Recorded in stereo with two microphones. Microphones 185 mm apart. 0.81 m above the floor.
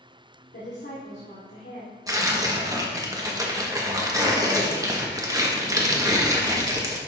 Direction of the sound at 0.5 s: 75° left (ahead or behind).